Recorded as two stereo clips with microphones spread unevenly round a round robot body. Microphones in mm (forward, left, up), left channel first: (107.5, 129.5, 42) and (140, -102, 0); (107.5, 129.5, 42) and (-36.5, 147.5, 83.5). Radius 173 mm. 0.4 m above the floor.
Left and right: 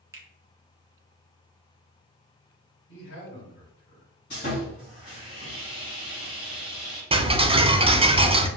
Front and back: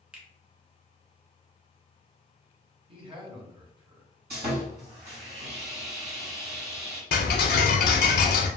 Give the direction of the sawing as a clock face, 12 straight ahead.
6 o'clock.